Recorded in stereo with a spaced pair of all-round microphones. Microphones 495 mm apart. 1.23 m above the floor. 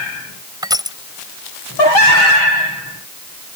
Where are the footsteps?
No footsteps in this recording.